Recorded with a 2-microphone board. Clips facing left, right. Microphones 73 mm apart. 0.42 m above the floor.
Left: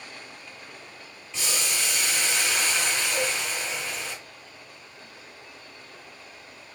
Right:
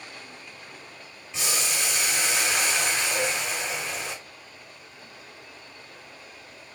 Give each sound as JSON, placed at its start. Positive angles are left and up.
{"t": 1.3, "sound": "boiling", "side_deg": -20, "distance_m": 2.0}
{"t": 3.1, "sound": "a cowbell", "side_deg": -35, "distance_m": 1.5}